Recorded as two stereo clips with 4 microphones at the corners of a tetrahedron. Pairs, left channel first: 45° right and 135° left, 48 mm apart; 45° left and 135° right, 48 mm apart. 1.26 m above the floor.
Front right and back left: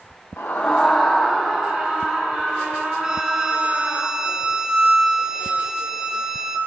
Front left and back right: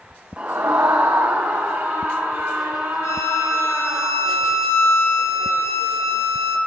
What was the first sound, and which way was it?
A scream, 75° right.